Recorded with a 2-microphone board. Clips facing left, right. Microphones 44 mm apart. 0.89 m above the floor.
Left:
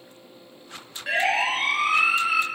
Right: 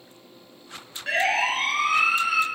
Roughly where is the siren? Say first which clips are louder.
Even; centre.